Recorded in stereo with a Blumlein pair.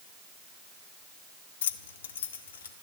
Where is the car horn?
I don't hear a car horn.